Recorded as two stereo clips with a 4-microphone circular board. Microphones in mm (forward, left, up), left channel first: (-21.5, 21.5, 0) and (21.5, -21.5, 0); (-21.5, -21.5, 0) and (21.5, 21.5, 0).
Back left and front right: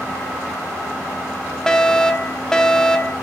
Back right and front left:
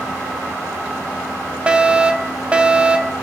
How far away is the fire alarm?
About 1.5 m.